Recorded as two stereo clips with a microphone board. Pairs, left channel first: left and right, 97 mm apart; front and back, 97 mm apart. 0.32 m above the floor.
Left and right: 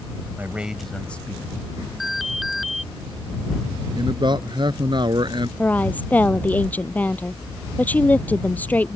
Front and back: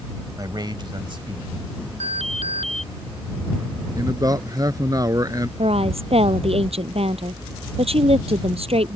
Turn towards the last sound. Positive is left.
turn(degrees=165)